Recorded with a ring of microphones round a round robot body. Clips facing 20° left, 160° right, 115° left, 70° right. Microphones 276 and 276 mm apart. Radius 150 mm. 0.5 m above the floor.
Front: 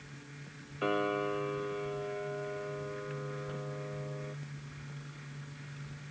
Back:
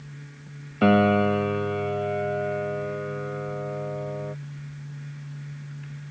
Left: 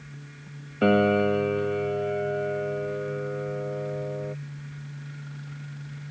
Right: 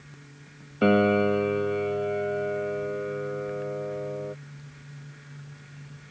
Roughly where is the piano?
Behind right.